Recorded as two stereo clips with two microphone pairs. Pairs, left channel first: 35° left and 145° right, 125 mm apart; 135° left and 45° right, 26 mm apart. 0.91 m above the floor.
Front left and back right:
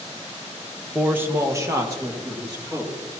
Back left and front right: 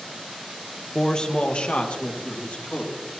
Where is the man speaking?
145° left, 0.9 m; by 2.9 s 155° left, 3 m.